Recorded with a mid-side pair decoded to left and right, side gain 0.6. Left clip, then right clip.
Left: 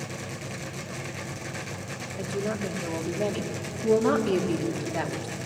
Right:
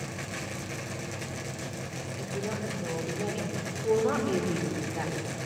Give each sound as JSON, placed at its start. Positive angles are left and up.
{"t": 2.2, "sound": "a woman speaking", "azimuth_deg": 65, "distance_m": 4.5}